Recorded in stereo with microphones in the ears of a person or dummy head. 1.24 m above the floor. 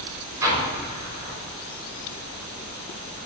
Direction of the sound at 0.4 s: 15° right (ahead or behind).